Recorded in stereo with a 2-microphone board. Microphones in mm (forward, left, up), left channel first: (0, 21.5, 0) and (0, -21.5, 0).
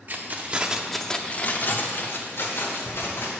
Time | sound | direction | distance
0.1 | keys jangling | 45° right (ahead or behind) | 0.8 m